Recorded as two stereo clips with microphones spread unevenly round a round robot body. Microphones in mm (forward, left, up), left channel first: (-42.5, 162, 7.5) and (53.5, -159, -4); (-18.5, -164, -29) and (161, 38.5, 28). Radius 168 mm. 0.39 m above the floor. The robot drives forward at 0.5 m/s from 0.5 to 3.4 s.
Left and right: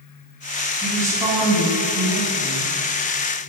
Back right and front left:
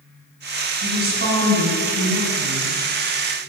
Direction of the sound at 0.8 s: 5° left.